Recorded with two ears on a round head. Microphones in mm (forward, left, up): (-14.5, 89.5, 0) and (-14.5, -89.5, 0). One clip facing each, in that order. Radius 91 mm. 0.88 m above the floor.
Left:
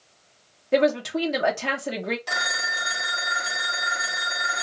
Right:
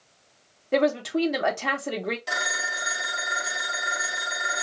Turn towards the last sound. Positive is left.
turn(degrees=-5)  # may be behind; listen again after turning